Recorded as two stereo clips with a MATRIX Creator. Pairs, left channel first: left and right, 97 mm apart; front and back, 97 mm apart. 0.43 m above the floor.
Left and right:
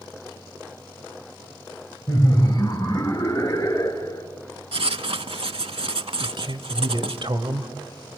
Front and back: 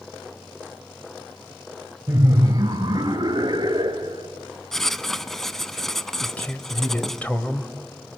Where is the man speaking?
70° right, 1.6 m.